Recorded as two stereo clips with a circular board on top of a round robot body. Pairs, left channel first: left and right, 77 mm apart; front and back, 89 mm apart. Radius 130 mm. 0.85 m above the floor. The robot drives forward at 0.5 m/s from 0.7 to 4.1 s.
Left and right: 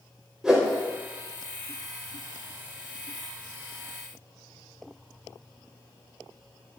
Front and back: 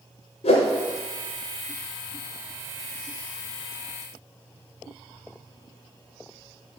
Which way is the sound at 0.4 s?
10° right.